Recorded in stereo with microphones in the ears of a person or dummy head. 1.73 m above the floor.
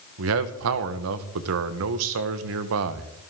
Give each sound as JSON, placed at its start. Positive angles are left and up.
{"t": 0.2, "sound": "a man speaking", "side_deg": -70, "distance_m": 1.4}